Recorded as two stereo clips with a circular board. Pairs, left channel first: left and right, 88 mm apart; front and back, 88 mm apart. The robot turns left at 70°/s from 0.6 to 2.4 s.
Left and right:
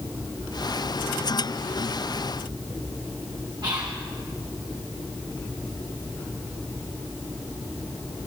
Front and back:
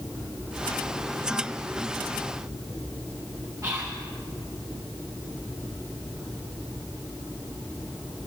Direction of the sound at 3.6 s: 125° right.